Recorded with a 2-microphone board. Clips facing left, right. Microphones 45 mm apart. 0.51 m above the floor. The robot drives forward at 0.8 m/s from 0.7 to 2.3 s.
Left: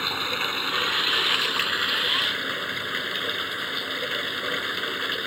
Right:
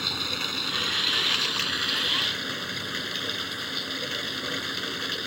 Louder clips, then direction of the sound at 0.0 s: Left 4 dB; 30° left (ahead or behind).